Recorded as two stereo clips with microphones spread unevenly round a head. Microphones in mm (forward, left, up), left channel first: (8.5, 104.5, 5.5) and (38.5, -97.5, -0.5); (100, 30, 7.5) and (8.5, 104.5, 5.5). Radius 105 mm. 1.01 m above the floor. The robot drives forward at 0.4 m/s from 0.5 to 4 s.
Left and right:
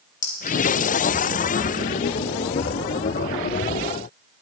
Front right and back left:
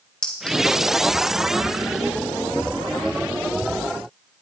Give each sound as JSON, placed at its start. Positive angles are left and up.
{"t": 0.2, "sound": "a clink", "azimuth_deg": 45, "distance_m": 3.0}